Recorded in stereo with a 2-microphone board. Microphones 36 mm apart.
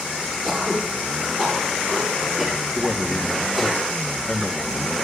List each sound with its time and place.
0.4 s throat clearing: 20° right (ahead or behind), 7.5 m
2.8 s a man speaking: centre (ahead or behind), 1.4 m